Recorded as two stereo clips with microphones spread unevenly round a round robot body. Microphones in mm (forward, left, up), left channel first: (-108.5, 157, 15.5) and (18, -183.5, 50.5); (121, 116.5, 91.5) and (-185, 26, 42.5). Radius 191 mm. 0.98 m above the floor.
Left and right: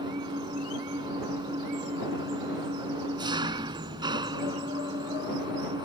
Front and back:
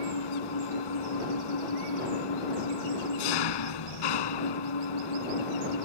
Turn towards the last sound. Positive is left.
turn(degrees=10)